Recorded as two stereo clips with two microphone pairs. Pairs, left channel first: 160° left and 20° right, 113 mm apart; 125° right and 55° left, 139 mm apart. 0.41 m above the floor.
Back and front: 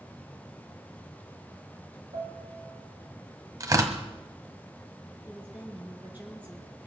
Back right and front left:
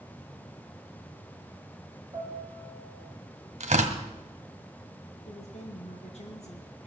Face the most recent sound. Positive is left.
turn(degrees=-95)